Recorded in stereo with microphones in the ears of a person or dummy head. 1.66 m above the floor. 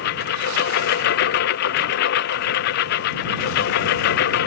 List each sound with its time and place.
0.0 s a lawn mower: 55° left (ahead or behind)